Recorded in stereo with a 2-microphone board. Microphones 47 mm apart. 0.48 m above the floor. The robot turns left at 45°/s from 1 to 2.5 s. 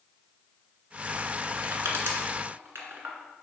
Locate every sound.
1.6 s crushing: 80° right, 1.5 m; by 3.1 s 60° right (ahead or behind), 1.5 m